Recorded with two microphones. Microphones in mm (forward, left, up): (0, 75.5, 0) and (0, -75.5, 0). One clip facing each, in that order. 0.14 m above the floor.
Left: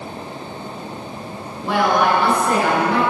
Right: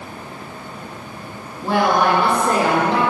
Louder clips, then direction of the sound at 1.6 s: Even; 35° right (ahead or behind).